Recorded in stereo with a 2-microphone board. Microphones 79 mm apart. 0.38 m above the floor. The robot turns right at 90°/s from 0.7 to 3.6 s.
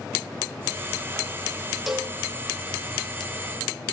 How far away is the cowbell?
About 0.8 m.